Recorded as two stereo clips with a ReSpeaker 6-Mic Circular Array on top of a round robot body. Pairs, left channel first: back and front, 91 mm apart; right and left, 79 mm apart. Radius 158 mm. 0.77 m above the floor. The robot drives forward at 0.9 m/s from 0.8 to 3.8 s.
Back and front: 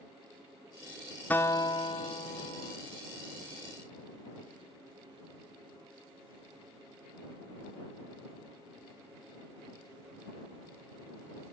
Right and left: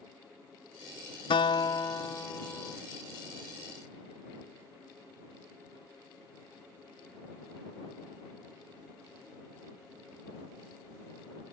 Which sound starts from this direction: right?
A guitar, at 1.3 s.